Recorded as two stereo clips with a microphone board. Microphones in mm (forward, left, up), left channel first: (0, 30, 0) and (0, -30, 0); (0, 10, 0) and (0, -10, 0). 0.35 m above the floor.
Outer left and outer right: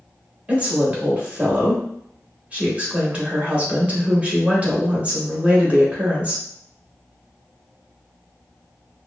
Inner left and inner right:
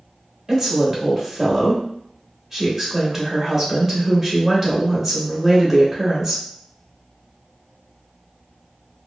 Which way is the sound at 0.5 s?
25° right (ahead or behind).